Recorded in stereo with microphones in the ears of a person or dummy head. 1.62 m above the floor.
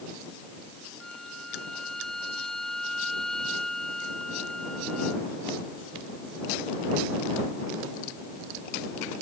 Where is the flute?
5° left (ahead or behind).